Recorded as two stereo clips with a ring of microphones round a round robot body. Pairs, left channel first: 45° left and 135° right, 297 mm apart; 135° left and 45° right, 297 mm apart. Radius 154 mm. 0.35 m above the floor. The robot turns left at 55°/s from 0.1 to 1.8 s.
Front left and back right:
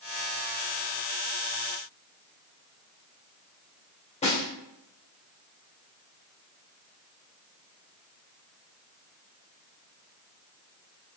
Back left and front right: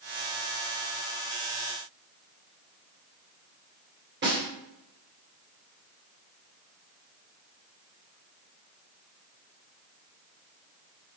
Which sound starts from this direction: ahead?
A snare drum, at 4.2 s.